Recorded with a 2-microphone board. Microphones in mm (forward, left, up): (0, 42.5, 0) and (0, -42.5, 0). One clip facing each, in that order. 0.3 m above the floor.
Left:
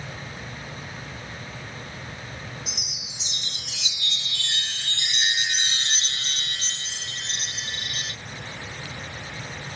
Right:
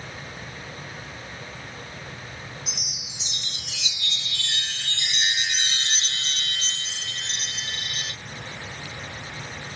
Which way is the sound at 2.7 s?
5° right (ahead or behind).